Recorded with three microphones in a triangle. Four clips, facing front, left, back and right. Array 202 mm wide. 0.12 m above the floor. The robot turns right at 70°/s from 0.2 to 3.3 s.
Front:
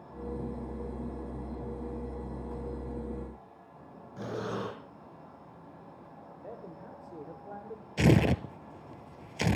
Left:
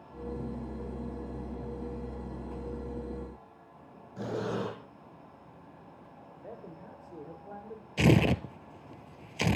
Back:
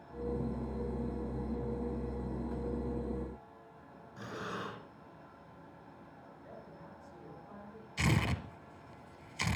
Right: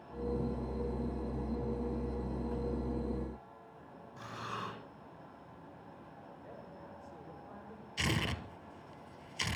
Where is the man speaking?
30° left, 6 m.